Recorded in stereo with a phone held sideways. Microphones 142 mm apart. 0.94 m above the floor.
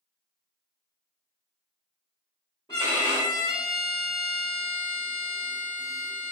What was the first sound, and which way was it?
A violin, 30° left (ahead or behind).